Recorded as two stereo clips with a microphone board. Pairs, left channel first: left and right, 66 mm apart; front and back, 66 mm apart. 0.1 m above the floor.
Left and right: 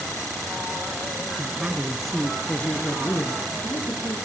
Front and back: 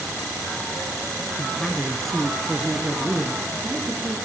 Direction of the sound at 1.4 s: 55° right.